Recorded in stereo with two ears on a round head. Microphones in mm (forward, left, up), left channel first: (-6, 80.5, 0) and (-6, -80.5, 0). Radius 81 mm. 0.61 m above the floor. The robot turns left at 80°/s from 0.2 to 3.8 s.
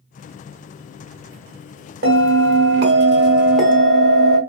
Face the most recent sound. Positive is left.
turn(degrees=160)